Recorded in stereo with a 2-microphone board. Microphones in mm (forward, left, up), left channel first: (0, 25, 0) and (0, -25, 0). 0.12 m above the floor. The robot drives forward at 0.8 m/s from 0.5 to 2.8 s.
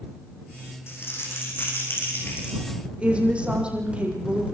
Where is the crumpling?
55° left (ahead or behind), 8.5 m; by 2.6 s 50° left (ahead or behind), 9 m.